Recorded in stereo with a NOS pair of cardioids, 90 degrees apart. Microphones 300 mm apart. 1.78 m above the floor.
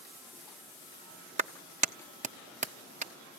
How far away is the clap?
About 1.2 m.